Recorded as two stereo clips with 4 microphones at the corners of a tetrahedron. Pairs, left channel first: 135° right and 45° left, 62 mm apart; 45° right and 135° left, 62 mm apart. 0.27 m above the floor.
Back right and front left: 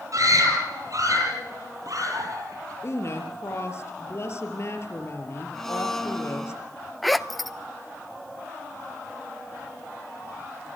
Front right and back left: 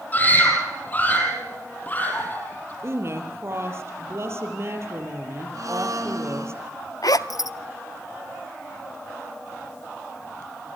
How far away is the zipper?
About 0.8 m.